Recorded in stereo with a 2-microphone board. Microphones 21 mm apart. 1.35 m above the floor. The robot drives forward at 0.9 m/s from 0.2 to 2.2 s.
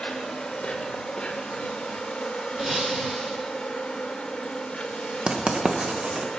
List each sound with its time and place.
0.0 s an insect: 50° left (ahead or behind), 2.5 m; by 6.4 s 65° left (ahead or behind), 2 m
2.6 s breaking glass: 50° right (ahead or behind), 8.5 m
5.3 s writing: 45° right (ahead or behind), 1.1 m